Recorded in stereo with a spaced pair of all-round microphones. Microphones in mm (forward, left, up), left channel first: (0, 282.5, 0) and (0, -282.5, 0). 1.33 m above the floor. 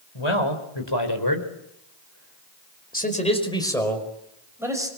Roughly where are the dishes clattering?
I don't hear dishes clattering.